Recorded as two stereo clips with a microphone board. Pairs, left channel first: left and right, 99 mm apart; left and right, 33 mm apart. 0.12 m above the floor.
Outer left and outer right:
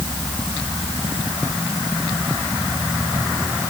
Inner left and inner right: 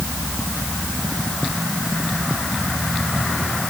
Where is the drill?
I don't hear a drill.